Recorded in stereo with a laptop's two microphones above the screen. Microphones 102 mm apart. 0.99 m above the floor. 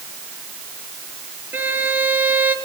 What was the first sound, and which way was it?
A violin, 20° right (ahead or behind).